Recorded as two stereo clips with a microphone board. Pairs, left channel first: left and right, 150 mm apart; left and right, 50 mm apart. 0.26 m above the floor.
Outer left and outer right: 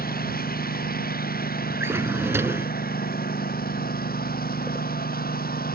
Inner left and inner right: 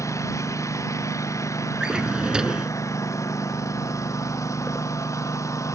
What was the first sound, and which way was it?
A lawn mower, 85° left.